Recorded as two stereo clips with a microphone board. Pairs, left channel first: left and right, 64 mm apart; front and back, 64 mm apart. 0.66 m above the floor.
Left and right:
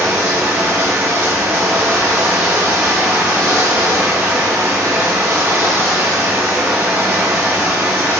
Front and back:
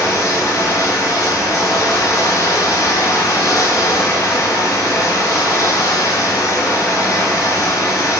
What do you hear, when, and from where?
0.0 s running water: 35° right, 3.5 m